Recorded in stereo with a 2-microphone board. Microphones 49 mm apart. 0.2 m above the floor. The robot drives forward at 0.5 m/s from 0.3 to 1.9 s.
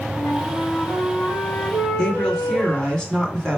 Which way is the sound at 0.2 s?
40° left (ahead or behind).